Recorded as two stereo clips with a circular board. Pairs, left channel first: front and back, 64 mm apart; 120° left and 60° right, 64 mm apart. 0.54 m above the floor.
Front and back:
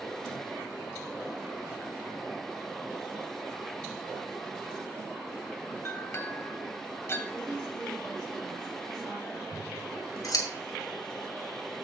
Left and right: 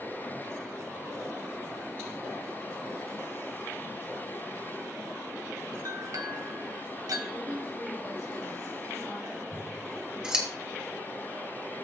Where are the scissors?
15° left, 2.5 m.